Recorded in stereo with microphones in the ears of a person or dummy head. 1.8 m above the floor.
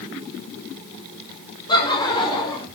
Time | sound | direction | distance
1.7 | laughter | 25° left (ahead or behind) | 7 m